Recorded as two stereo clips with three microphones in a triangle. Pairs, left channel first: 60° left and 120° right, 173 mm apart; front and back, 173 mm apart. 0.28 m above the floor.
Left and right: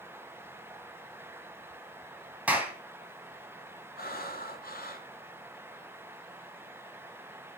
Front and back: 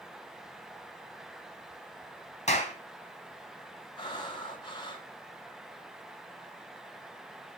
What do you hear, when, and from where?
2.5 s a clap: 40° right, 2.5 m
4.0 s breathing: 60° left, 1.6 m